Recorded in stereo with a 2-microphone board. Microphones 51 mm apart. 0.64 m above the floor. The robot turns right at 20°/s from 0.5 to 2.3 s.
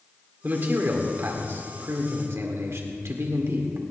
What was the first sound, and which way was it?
A man speaking, 135° right.